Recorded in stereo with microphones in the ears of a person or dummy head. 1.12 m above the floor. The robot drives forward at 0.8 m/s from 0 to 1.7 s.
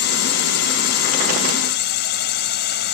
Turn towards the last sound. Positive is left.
turn(degrees=55)  # may be behind; listen again after turning